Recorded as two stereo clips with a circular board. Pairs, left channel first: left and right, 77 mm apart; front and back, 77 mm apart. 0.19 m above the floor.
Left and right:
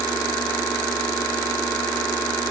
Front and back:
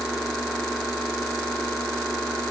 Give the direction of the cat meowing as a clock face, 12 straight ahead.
No cat meowing in this recording.